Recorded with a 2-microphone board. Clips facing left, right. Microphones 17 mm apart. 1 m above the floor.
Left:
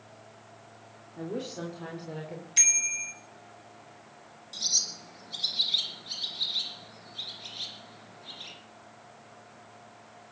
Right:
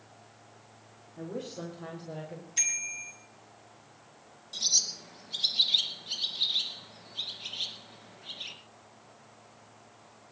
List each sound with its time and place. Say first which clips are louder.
1.2 s a woman speaking: left 3 dB; 35° left (ahead or behind), 3 m; by 2.5 s 30° left (ahead or behind), 4 m
2.6 s a bicycle bell: left 6 dB; 40° left (ahead or behind), 3 m
4.5 s a bird: right 1 dB; centre (ahead or behind), 2.5 m